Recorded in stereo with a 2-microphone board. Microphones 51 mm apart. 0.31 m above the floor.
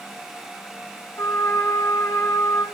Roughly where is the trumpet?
Left.